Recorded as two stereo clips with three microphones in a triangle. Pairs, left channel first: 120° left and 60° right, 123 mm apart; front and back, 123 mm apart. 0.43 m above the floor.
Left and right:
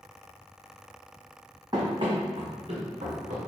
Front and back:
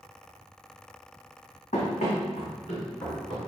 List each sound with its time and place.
1.7 s running footsteps: 5° right, 1.1 m; by 3.4 s 35° right, 2 m